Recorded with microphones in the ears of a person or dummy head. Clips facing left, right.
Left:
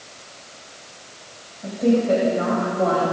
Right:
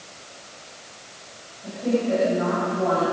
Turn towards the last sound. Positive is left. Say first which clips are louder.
# left 5 dB
turn(degrees=65)  # may be behind; listen again after turning